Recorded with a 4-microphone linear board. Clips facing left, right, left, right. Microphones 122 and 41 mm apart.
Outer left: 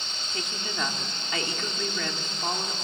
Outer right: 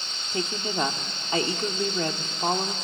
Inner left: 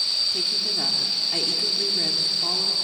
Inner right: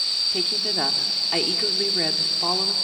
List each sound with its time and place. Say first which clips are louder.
0.3 s a woman speaking: outer right 7 dB, inner right 2 dB; 35° right (ahead or behind), 1.3 m